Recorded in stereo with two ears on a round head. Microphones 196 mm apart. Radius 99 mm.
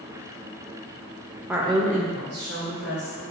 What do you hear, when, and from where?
1.5 s a woman speaking: 5° right (ahead or behind), 0.6 m; by 3.3 s 50° right (ahead or behind), 1.7 m